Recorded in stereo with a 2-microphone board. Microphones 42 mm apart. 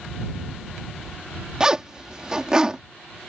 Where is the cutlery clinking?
No cutlery clinking in this recording.